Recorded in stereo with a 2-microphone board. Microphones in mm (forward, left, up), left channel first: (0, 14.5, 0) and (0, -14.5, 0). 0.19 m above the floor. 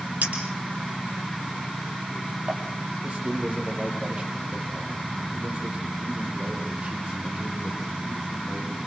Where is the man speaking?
35° right (ahead or behind), 6.5 m.